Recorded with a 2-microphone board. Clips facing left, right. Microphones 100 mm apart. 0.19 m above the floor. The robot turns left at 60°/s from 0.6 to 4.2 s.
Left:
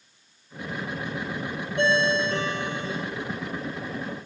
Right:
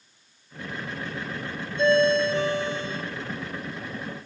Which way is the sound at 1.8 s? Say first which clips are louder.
Right 3 dB; 110° left.